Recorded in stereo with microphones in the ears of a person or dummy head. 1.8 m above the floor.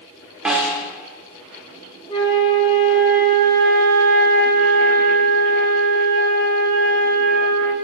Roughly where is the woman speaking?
I don't hear a woman speaking.